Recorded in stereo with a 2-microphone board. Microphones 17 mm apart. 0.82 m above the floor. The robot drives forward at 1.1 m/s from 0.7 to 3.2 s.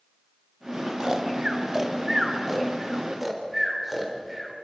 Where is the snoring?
40° right (ahead or behind), 1.4 m; by 4.5 s 15° right (ahead or behind), 3.5 m.